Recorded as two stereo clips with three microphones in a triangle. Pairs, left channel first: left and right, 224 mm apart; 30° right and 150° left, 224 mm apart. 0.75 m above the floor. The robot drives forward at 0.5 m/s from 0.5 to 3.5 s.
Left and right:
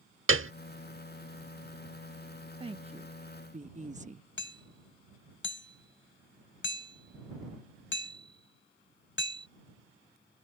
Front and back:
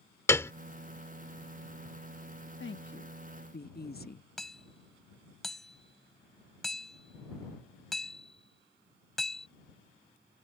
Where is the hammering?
60° left.